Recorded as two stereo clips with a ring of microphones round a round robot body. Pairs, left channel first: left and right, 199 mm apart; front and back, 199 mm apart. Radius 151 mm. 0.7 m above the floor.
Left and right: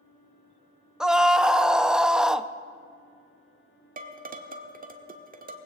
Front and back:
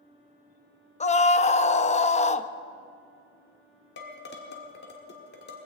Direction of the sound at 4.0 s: 45° right.